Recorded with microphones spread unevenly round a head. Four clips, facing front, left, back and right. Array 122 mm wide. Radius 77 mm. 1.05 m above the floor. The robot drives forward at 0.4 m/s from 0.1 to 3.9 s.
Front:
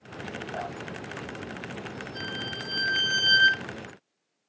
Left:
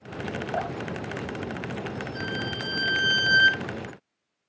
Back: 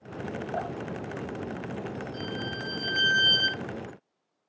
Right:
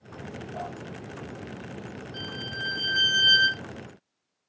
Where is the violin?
160° right, 4 m; by 3.6 s 165° right, 4.5 m.